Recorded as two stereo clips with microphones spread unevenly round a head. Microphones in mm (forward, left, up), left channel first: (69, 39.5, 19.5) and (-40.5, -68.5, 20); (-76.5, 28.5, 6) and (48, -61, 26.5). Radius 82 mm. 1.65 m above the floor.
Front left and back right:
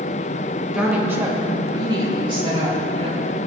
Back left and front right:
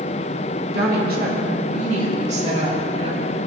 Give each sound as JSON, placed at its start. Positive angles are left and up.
{"t": 0.7, "sound": "a woman speaking", "azimuth_deg": -50, "distance_m": 1.7}